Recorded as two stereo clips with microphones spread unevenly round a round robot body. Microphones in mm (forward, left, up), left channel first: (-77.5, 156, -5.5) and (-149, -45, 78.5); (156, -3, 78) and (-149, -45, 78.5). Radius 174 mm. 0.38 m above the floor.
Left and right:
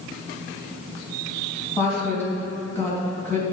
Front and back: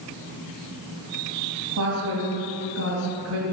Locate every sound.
1.8 s a woman speaking: 140° left, 3 m